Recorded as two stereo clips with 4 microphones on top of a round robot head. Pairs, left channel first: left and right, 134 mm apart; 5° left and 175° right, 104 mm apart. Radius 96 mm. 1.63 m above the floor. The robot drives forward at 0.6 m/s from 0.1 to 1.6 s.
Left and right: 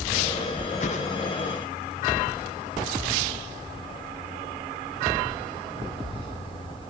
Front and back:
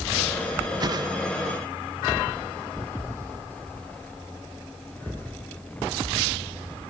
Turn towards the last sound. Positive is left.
turn(degrees=145)